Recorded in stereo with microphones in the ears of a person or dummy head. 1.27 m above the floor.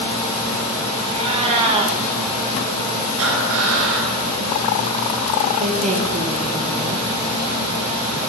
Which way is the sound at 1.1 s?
35° right (ahead or behind).